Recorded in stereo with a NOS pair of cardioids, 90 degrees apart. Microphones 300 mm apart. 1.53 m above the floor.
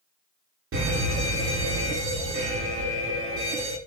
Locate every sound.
0.7 s a fire alarm: 50° right, 8 m